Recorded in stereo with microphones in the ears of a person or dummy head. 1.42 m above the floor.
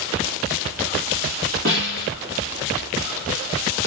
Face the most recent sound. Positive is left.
turn(degrees=-50)  # may be behind; listen again after turning